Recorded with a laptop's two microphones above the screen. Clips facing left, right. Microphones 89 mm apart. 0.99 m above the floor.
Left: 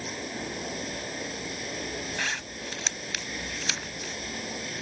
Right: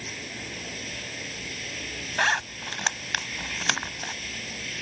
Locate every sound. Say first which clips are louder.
0.0 s running water: left 4 dB; 25° left (ahead or behind)
2.2 s a zipper: right 8 dB; 60° right (ahead or behind)